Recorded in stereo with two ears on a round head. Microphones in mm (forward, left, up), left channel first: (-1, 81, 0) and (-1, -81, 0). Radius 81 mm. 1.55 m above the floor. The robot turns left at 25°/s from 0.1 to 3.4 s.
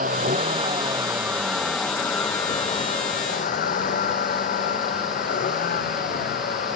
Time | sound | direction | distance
0.0 | a vehicle | 45° right (ahead or behind) | ?